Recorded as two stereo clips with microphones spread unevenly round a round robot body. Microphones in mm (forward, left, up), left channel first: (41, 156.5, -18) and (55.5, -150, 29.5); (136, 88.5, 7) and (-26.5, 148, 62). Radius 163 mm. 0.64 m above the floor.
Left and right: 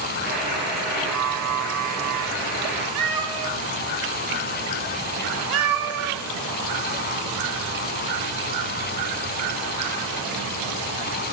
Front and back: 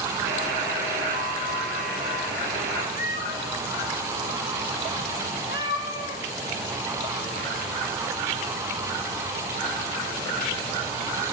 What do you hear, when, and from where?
0.2 s a buzzer: 175° right, 6 m
3.0 s a cat meowing: 85° right, 1.2 m